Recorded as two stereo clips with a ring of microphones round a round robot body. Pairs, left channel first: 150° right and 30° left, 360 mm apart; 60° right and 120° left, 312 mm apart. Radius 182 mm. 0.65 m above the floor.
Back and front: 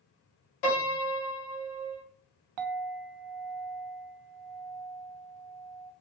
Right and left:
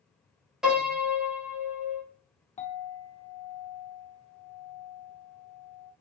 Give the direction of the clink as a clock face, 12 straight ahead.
12 o'clock.